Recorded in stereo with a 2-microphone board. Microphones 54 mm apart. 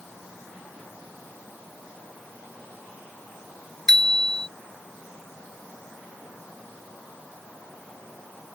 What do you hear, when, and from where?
3.9 s a bicycle bell: 10° left (ahead or behind)